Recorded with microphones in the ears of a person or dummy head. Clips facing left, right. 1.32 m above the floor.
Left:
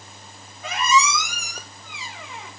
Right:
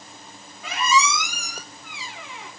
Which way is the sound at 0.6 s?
35° left (ahead or behind).